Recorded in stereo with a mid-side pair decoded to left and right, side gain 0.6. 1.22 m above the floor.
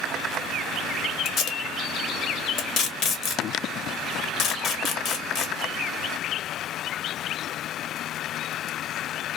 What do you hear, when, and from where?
1.2 s tape being pulled: 60° left, 1.0 m